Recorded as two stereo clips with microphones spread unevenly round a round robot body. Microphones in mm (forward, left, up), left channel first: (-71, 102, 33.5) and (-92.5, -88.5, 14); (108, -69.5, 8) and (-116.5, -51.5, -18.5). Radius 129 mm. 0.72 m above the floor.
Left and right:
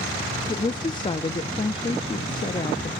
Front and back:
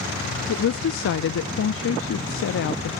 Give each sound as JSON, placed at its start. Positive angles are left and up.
{"t": 0.5, "sound": "a woman speaking", "azimuth_deg": 15, "distance_m": 0.6}